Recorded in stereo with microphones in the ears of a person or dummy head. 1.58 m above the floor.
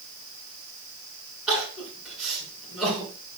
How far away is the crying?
About 6 m.